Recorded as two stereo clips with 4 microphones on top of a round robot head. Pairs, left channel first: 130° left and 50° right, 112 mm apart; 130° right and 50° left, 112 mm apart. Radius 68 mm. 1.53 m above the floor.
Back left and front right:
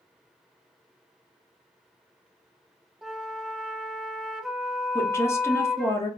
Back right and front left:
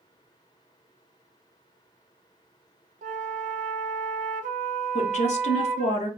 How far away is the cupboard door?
I don't hear a cupboard door.